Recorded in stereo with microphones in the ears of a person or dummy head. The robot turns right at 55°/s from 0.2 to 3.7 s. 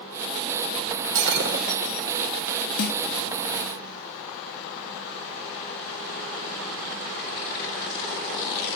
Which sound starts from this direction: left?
A snare drum, at 2.8 s.